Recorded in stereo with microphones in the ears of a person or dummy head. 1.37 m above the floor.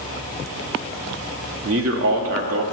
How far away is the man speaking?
About 1.1 m.